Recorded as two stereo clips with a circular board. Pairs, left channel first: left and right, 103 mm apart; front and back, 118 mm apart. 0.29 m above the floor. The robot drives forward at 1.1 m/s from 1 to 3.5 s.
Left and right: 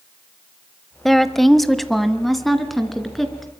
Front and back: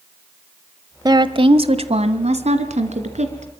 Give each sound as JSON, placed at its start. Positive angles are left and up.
{"t": 1.1, "sound": "a woman speaking", "azimuth_deg": 180, "distance_m": 1.0}